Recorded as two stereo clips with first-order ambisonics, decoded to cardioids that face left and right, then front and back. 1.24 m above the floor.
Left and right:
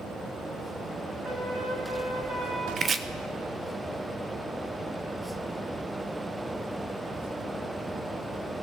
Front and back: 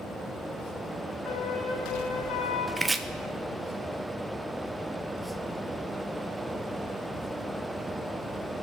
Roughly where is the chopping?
Behind right.